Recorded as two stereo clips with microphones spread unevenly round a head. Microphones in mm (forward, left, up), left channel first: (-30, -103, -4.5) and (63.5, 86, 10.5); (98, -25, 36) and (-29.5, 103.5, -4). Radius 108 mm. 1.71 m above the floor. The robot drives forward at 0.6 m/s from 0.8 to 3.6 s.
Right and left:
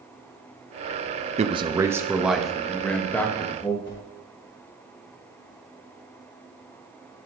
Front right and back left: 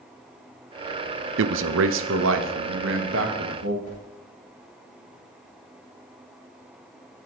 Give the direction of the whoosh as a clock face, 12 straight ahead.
3 o'clock.